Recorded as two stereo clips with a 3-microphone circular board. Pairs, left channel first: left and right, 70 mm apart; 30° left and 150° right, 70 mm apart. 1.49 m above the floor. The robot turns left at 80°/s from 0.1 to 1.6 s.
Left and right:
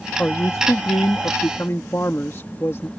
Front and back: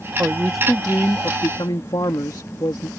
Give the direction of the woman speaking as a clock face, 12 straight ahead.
7 o'clock.